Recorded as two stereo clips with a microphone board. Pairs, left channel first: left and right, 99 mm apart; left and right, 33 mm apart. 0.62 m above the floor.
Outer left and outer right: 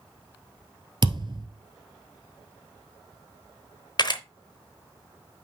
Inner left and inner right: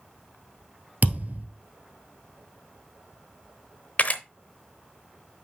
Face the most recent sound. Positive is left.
turn(degrees=50)  # may be behind; listen again after turning